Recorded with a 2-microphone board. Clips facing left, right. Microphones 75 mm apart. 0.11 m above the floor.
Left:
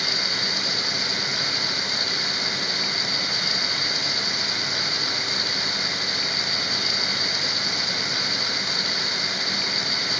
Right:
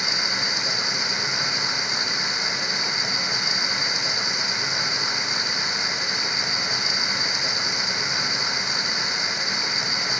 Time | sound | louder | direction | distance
0.0 | running water | right 1 dB | 20° right (ahead or behind) | ?